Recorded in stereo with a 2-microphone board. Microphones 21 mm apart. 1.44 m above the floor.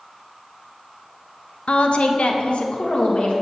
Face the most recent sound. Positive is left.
turn(degrees=60)  # may be behind; listen again after turning